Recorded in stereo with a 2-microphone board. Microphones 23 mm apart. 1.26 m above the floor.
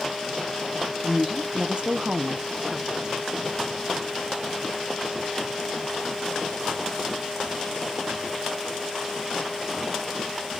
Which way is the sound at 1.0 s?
10° right (ahead or behind).